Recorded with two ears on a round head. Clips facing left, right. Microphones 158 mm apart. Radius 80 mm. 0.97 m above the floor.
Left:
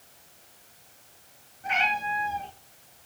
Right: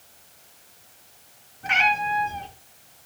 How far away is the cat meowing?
About 6.5 m.